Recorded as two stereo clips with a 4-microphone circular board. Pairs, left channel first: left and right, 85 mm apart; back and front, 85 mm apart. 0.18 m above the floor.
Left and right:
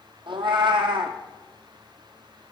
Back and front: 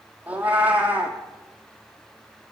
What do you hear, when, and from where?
0.3 s a cat meowing: 70° right, 1.0 m